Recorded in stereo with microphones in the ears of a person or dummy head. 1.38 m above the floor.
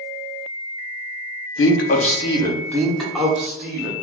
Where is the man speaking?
55° left (ahead or behind), 0.6 m; by 3.9 s 5° right (ahead or behind), 1.4 m.